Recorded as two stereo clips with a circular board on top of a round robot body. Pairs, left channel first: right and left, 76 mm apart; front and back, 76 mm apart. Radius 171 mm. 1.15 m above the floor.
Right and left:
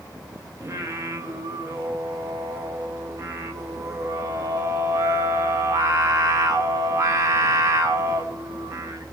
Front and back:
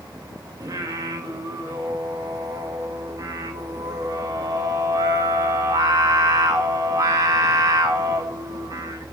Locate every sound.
0.6 s singing: 140° left, 1.1 m